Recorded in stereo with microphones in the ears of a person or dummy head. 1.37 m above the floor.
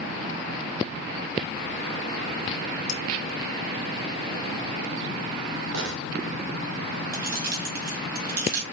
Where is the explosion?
75° right (ahead or behind), 2.5 m.